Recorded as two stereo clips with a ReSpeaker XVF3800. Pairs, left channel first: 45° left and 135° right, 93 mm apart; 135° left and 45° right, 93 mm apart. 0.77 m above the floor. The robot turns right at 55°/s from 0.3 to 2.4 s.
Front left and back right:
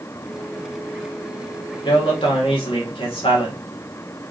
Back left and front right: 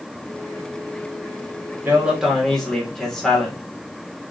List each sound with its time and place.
1.9 s a man speaking: 20° left, 1.7 m; by 3.6 s 50° left, 1.7 m